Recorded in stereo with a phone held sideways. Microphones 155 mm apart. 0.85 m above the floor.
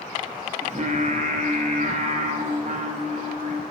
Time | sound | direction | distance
0.6 | singing | 55° right (ahead or behind) | 0.5 m